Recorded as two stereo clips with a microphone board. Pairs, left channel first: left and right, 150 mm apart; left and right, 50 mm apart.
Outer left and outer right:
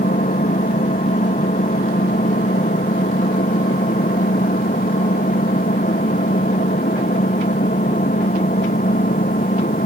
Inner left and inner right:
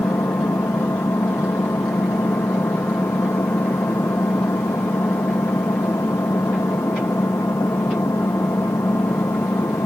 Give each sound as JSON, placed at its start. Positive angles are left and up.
{"t": 0.0, "sound": "an engine running", "side_deg": 80}